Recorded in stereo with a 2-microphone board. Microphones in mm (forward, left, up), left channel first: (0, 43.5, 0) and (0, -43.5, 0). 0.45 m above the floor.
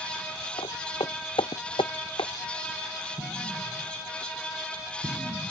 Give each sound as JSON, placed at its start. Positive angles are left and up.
{"t": 0.6, "sound": "footsteps", "side_deg": 80}
{"t": 3.2, "sound": "an explosion", "side_deg": -70}